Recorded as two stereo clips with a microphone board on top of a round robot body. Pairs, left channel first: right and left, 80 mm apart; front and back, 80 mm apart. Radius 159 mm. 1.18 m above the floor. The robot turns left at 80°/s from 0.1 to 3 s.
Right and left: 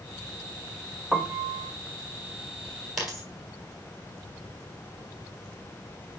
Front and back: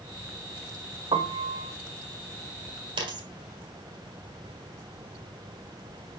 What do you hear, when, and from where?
1.1 s a piano: 175° left, 0.6 m; by 1.7 s 125° left, 0.6 m
3.0 s a dropped coin: 175° left, 1.2 m